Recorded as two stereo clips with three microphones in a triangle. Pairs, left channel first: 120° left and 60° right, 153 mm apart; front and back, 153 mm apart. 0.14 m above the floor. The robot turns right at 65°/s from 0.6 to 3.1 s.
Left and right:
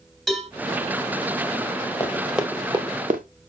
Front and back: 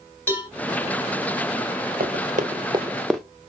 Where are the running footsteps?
170° right, 1.6 m; by 3.2 s 90° right, 1.0 m.